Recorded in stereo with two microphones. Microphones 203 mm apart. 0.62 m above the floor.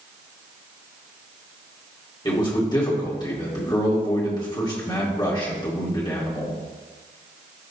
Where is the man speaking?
20° left (ahead or behind), 2 m.